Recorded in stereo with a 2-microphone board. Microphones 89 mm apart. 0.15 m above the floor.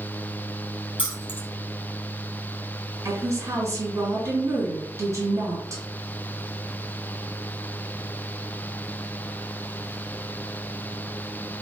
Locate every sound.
1.0 s keys jangling: 70° left (ahead or behind), 2.5 m
3.0 s a woman speaking: 35° right (ahead or behind), 2.5 m